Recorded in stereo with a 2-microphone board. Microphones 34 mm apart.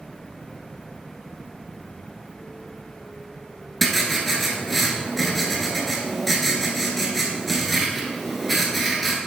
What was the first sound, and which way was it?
Writing, 5° left (ahead or behind).